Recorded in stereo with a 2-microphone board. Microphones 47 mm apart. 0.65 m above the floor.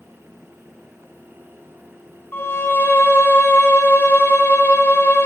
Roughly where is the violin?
Left.